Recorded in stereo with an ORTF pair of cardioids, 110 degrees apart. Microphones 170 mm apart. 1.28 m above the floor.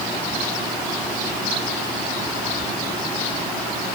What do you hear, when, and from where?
Only background noise.